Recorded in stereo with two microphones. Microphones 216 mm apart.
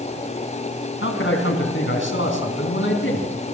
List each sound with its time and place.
1.0 s a man speaking: 65° left (ahead or behind), 3 m